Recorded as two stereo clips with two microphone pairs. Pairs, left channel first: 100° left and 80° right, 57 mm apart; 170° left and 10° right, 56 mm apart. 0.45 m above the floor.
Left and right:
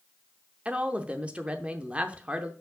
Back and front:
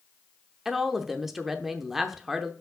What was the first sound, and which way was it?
A woman speaking, 85° right.